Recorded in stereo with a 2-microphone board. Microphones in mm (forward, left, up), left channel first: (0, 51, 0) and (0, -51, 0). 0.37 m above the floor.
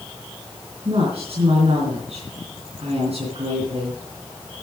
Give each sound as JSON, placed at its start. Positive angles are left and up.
{"t": 0.8, "sound": "a woman speaking", "side_deg": -75, "distance_m": 4.5}